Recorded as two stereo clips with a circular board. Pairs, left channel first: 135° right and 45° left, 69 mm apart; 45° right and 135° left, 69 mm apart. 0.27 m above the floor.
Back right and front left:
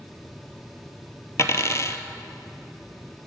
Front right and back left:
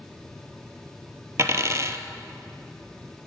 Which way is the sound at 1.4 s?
Straight behind.